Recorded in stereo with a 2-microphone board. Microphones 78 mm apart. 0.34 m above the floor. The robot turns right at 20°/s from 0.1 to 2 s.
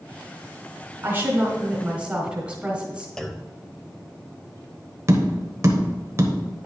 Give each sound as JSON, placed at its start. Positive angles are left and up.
{"t": 1.0, "sound": "a woman speaking", "side_deg": -30, "distance_m": 1.9}
{"t": 3.2, "sound": "a clunk", "side_deg": 5, "distance_m": 0.6}
{"t": 5.1, "sound": "tapping", "side_deg": -40, "distance_m": 1.0}